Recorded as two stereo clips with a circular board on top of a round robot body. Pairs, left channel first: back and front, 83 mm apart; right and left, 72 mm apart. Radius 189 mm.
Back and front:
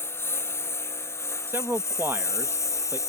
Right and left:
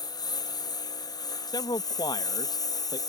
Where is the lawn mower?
120° right; by 3.1 s 125° right.